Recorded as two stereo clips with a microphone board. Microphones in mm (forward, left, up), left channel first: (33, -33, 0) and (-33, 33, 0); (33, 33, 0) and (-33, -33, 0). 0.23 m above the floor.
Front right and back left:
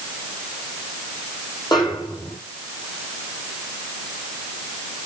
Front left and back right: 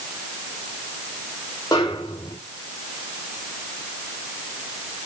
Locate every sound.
1.7 s a snare drum: straight ahead, 8.5 m